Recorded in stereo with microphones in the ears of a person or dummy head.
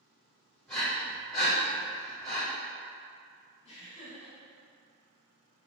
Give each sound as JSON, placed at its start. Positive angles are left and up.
{"t": 0.7, "sound": "breathing", "side_deg": 10, "distance_m": 1.7}
{"t": 3.6, "sound": "laughter", "side_deg": 35, "distance_m": 1.4}